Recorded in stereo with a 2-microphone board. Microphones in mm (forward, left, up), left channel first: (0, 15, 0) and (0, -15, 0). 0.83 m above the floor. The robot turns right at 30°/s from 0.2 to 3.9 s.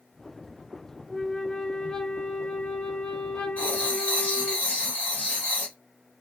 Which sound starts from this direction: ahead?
A flute, at 1.1 s.